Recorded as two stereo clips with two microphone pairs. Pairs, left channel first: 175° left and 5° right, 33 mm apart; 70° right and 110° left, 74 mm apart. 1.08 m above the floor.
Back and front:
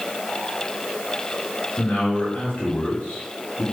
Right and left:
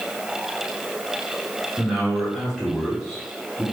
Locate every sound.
1.8 s a man speaking: 170° right, 2.5 m